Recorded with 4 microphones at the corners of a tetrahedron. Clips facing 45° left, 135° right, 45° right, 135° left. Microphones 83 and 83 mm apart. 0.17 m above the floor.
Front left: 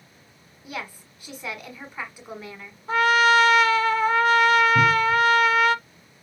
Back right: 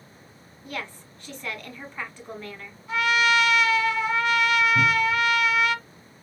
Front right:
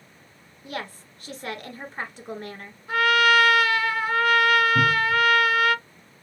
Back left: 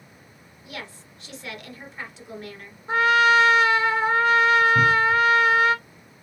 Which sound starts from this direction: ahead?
A cupboard door, at 4.8 s.